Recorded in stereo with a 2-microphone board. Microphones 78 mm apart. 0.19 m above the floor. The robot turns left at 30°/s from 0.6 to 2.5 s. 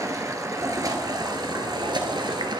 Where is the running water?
45° right, 1.5 m; by 2.6 s 105° right, 1.5 m.